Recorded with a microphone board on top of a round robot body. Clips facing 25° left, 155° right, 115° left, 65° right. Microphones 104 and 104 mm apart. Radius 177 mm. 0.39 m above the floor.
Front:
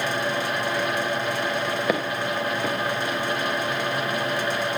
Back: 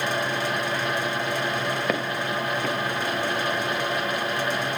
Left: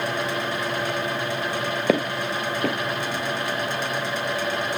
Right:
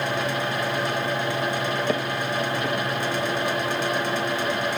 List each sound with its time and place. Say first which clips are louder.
1.9 s footsteps: front 1 dB, left 2 dB; 105° left, 0.7 m